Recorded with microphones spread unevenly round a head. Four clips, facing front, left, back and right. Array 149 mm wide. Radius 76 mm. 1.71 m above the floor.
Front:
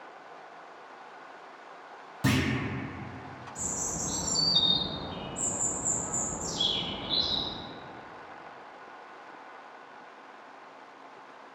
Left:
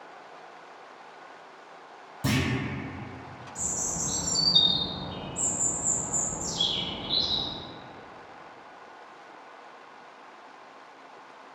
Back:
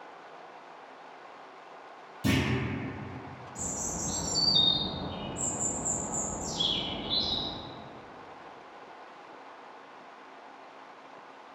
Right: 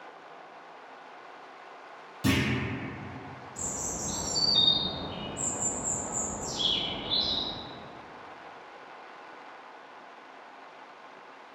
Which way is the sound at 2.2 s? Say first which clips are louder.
Right 1 dB, front 1 dB; straight ahead.